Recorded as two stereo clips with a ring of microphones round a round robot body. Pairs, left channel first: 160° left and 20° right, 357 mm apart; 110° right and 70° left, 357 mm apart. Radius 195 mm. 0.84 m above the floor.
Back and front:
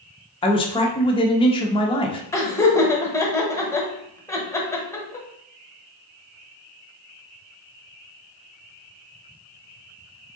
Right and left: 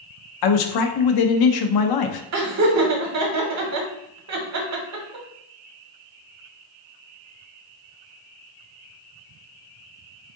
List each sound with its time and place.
0.4 s a man speaking: 125° right, 0.6 m
2.3 s laughter: 80° left, 1.1 m